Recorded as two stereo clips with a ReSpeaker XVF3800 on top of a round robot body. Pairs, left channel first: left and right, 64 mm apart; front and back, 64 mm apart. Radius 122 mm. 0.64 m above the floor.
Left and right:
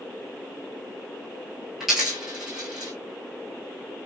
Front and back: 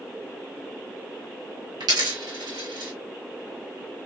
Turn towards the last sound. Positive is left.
turn(degrees=-175)